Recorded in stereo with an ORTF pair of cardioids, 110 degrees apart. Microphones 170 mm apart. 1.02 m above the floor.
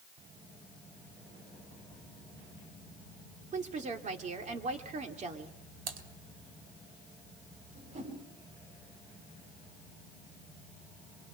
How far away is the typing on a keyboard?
About 2.0 m.